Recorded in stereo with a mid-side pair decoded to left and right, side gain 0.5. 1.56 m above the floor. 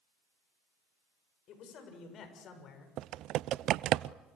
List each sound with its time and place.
1.5 s a man speaking: 65° left, 8 m; by 2.9 s 55° left, 6.5 m
3.0 s typing on a keyboard: 70° right, 0.5 m